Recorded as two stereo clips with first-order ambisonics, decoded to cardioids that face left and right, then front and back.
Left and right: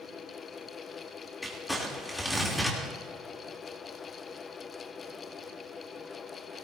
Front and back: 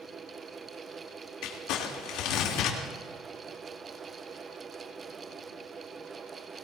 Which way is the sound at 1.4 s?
5° left.